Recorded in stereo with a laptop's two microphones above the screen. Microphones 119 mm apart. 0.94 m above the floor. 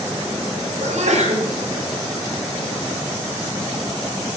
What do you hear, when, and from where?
0.8 s a sneeze: 75° right (ahead or behind), 6 m